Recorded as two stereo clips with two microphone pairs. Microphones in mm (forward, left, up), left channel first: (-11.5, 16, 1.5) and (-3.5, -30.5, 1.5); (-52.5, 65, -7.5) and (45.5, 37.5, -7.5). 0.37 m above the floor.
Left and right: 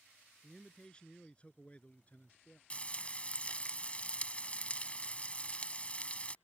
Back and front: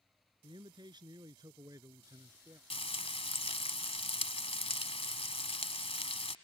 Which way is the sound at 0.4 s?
25° left.